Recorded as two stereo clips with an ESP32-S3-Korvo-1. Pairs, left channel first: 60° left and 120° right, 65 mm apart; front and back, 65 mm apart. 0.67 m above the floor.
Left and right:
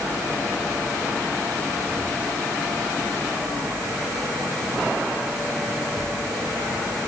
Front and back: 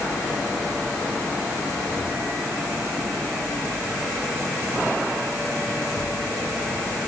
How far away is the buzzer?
No buzzer in this recording.